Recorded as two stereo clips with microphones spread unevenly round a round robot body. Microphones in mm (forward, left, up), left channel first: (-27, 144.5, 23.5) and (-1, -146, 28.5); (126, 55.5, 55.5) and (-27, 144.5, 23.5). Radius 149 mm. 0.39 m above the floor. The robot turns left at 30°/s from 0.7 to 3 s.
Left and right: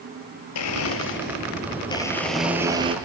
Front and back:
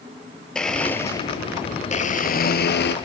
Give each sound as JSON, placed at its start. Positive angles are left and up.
{"t": 0.6, "sound": "a blender", "azimuth_deg": 55, "distance_m": 2.0}